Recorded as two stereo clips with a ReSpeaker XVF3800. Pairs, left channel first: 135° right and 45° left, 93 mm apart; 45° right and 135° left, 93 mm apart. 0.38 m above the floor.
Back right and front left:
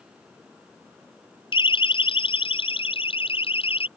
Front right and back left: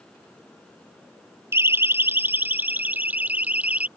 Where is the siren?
160° right; by 3.9 s 150° right.